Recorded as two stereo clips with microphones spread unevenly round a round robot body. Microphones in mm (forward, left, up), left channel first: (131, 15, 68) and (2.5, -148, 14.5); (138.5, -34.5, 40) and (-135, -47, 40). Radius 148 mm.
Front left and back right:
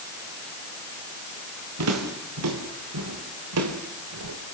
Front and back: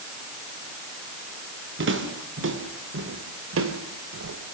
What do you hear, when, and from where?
1.8 s footsteps: 130° right, 5.5 m; by 4.5 s 140° right, 3 m